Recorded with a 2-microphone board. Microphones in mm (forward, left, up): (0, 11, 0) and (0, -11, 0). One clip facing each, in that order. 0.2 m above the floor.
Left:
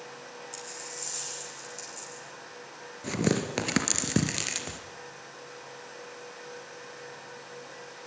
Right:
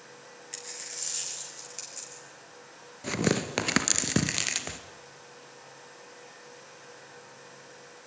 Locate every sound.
0.5 s a dropped coin: 25° right (ahead or behind), 5 m
3.0 s tearing paper: 15° right (ahead or behind), 2 m